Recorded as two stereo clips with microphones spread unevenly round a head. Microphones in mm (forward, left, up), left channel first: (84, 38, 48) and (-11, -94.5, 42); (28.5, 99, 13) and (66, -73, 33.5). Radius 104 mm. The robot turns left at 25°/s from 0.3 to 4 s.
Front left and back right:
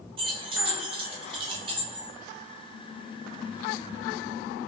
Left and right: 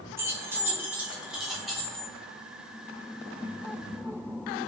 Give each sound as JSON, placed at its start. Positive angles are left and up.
{"t": 0.2, "sound": "keys jangling", "azimuth_deg": -115, "distance_m": 0.5}